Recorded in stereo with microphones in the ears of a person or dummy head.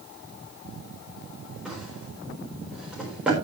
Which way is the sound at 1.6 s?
5° right (ahead or behind).